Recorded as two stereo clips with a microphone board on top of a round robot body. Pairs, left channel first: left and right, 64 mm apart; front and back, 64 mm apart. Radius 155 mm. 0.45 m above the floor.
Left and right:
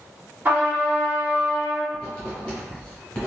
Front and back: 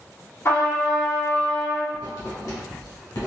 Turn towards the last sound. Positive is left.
turn(degrees=15)